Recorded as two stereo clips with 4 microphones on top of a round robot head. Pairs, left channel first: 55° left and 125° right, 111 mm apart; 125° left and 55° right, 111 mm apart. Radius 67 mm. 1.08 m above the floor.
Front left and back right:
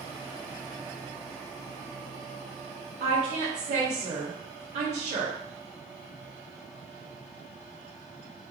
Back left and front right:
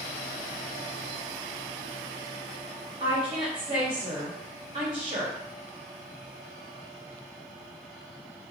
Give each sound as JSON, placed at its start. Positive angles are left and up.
{"t": 3.0, "sound": "a woman speaking", "azimuth_deg": -100, "distance_m": 0.9}